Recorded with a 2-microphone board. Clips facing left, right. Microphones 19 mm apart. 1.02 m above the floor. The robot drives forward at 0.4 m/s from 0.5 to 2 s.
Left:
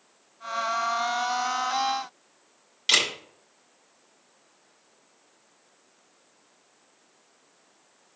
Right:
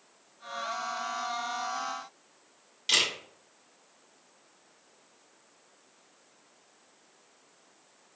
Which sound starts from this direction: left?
A camera shutter, at 2.9 s.